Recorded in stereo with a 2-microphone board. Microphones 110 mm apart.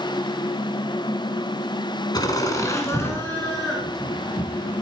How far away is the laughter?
About 1.6 m.